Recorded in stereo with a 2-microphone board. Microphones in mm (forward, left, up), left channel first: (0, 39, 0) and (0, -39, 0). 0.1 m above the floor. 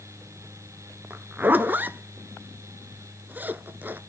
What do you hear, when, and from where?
1.1 s a zipper: 25° right (ahead or behind), 0.6 m